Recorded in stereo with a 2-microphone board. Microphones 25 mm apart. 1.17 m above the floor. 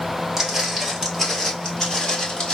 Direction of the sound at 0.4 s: 15° right (ahead or behind).